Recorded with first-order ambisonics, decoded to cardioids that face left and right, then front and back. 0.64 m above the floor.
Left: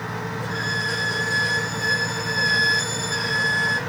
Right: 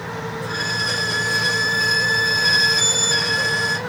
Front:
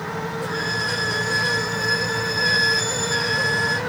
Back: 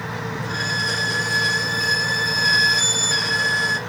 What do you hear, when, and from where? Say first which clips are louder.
0.4 s a violin: right 3 dB, back 2 dB; 120° right, 1.3 m